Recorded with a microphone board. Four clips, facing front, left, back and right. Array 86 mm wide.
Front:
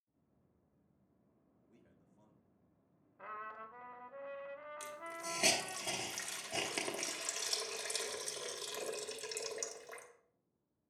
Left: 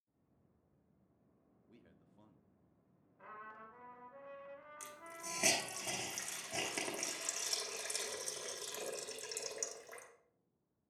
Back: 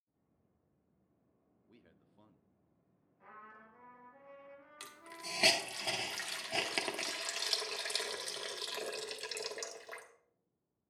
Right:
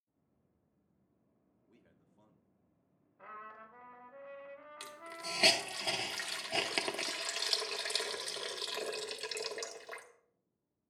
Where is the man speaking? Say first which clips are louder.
Left 2 dB, back 3 dB; 170° left, 0.7 m.